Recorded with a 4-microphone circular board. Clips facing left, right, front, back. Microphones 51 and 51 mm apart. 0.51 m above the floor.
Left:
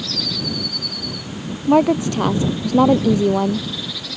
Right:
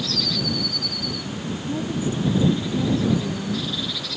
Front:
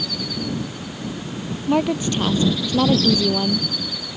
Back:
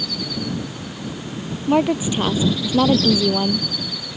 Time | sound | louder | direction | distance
1.7 | a woman speaking | left 13 dB, back 2 dB | 100° left | ?